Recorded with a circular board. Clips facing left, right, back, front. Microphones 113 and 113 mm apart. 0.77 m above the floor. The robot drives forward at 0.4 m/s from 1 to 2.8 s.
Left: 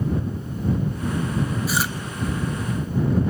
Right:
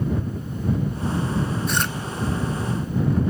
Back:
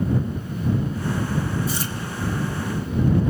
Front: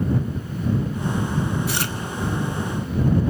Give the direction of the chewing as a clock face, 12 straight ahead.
12 o'clock.